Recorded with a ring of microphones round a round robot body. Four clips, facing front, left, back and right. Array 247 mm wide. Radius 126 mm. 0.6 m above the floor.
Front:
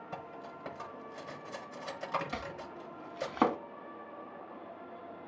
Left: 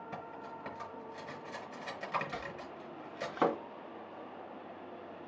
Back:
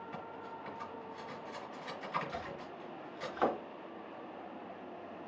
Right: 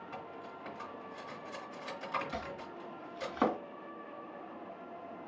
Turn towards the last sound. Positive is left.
turn(degrees=0)